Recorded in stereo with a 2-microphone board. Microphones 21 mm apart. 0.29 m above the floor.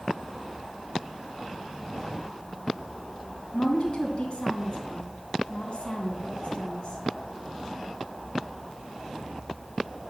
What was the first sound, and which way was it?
A woman speaking, 55° left (ahead or behind).